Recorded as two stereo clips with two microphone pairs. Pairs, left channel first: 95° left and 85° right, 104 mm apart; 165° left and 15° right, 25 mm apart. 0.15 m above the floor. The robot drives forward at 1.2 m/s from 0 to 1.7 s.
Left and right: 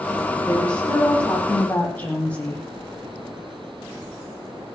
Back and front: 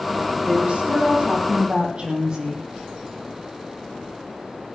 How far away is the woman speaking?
About 8 m.